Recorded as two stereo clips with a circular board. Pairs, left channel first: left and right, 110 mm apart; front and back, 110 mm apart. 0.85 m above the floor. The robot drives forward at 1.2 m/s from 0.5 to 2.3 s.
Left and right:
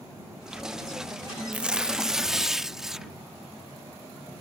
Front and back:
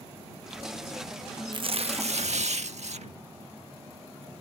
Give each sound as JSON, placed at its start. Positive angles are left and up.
{"t": 1.5, "sound": "tearing paper", "azimuth_deg": -165}